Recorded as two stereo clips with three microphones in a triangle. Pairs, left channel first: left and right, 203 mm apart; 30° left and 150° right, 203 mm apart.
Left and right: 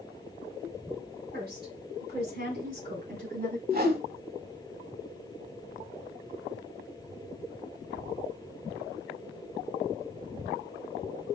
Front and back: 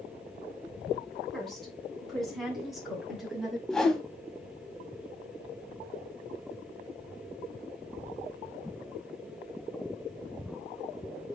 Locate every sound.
1.3 s a woman speaking: 60° right, 3 m; by 3.6 s 65° right, 2.0 m
3.7 s a whoosh: 55° right, 0.8 m